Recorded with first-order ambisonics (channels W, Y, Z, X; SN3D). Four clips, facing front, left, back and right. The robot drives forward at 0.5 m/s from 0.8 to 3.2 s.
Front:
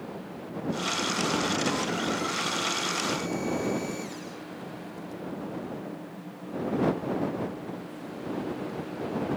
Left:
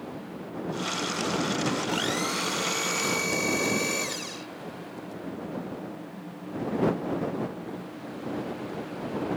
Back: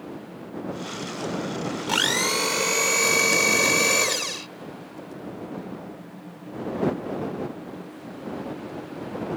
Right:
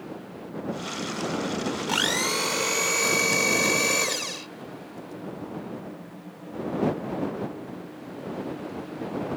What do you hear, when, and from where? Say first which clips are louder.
1.9 s a blender: right 3 dB, back 7 dB; 155° right; by 4.5 s 160° right